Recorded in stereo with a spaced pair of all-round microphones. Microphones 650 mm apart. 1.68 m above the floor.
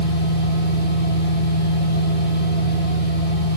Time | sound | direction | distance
0.0 | a machine running | 15° left (ahead or behind) | 4 m